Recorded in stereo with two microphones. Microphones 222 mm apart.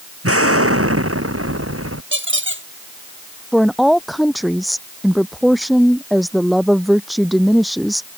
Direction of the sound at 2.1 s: 60° right (ahead or behind).